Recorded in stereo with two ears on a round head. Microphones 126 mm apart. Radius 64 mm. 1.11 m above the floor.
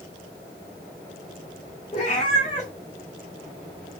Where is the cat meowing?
45° left (ahead or behind), 2 m.